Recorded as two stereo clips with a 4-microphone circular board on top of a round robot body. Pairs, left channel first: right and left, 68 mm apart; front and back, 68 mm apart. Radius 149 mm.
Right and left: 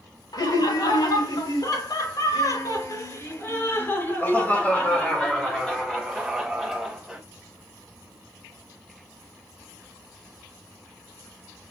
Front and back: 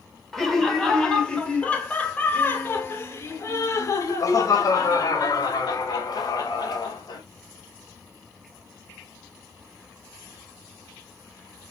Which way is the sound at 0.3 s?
90° right.